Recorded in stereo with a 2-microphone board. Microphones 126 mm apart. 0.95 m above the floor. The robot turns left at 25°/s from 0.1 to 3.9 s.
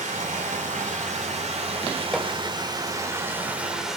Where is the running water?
80° right, 3 m; by 4.0 s 175° right, 3 m.